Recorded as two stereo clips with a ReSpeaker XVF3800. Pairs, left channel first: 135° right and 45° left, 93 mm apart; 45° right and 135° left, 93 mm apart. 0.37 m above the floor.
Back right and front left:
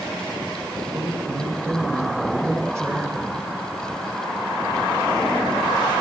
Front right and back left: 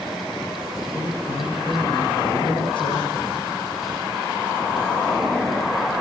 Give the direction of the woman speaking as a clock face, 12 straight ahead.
1 o'clock.